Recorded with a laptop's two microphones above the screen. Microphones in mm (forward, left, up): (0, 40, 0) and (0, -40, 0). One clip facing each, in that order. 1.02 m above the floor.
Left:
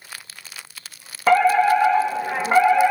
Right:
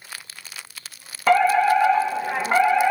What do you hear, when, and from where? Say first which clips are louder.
1.3 s a fire alarm: left 1 dB; 5° left (ahead or behind), 2.0 m